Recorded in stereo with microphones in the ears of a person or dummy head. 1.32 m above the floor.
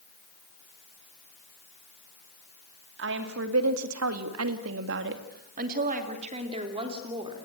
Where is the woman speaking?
60° right (ahead or behind), 2.5 m; by 7.5 s 20° right (ahead or behind), 4 m.